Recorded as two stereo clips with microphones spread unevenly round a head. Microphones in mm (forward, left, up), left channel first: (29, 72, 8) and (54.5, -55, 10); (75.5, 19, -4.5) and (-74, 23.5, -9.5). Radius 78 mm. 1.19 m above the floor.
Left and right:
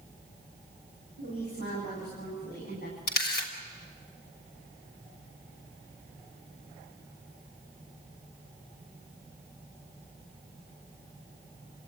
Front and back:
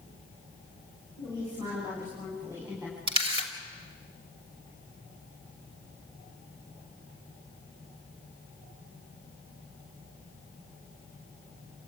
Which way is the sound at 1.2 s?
115° left.